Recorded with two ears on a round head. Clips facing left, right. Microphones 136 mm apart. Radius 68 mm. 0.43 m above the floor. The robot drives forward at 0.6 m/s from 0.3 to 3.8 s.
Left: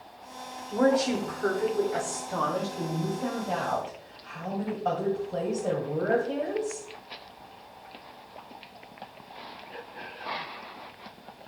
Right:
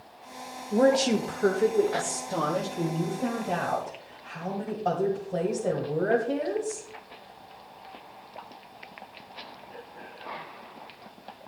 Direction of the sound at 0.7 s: 30° right (ahead or behind).